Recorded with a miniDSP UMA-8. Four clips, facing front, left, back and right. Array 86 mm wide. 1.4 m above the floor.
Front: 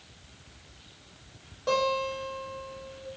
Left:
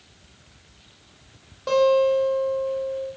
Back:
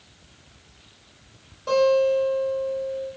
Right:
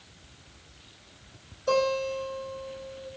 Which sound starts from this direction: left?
A guitar, at 1.7 s.